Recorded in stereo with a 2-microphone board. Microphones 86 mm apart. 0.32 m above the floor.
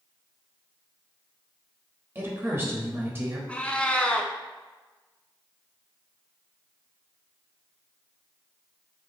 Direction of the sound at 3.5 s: 15° left (ahead or behind).